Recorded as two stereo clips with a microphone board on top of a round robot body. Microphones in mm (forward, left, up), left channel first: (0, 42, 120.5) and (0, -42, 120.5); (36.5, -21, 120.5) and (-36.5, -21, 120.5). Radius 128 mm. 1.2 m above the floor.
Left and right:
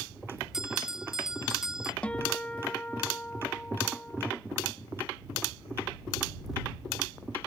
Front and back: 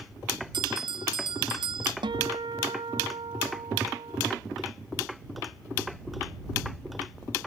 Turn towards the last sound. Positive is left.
turn(degrees=165)